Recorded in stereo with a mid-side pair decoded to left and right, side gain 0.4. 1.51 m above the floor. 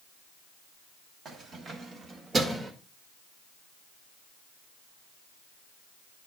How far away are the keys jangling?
About 2.0 m.